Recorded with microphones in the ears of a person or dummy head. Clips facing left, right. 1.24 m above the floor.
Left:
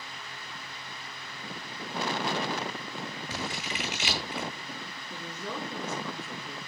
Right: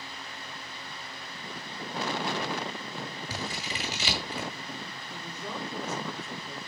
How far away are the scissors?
About 1.9 m.